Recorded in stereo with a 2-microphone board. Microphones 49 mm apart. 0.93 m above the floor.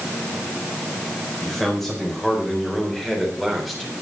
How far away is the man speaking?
About 4.5 m.